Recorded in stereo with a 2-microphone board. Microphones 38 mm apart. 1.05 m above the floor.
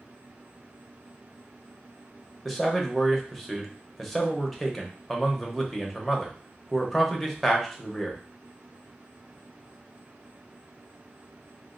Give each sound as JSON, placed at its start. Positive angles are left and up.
{"t": 2.5, "sound": "a man speaking", "side_deg": 0, "distance_m": 0.7}